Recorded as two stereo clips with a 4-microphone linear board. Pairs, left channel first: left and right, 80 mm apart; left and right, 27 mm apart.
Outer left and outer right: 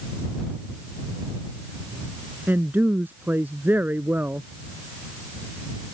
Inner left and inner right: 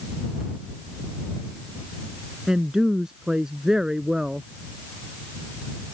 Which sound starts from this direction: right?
A woman speaking, at 2.5 s.